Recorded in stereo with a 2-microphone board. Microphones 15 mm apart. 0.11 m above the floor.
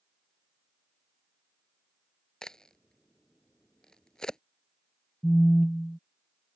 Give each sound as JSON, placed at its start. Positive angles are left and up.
{"t": 2.4, "sound": "a crack", "side_deg": 45}
{"t": 5.2, "sound": "a phone buzzing", "side_deg": 65}